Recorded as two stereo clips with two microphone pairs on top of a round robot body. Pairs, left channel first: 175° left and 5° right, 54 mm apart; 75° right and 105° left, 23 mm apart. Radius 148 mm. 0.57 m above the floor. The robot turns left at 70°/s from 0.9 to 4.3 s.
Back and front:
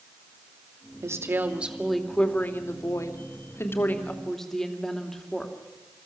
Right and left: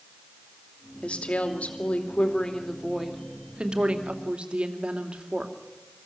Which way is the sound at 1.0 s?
35° right.